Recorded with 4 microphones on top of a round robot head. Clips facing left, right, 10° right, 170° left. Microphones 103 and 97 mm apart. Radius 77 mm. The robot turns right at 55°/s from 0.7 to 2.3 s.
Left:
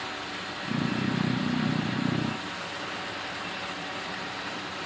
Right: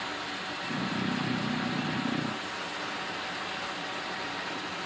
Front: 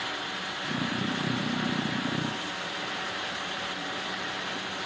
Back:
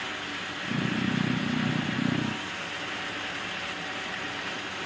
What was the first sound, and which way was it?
Only background noise.